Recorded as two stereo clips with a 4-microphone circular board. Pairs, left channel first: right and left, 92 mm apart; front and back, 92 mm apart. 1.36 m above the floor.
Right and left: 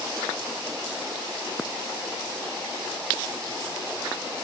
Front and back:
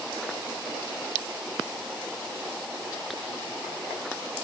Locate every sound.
Only background noise.